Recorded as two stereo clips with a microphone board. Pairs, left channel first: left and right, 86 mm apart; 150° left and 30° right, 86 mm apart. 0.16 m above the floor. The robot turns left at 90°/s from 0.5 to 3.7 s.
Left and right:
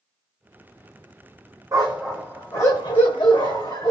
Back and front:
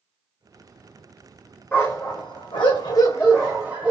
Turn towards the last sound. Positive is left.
turn(degrees=45)